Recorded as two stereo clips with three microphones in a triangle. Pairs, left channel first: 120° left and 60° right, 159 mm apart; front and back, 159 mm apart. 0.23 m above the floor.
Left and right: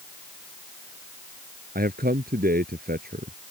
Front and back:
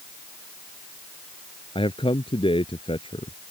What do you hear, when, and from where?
1.8 s a man speaking: 55° right